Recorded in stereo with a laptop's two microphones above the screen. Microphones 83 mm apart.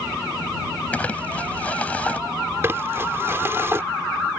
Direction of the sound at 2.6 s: 30° right (ahead or behind).